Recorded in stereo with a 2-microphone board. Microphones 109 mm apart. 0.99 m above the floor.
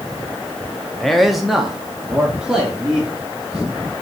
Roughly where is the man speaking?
Centre.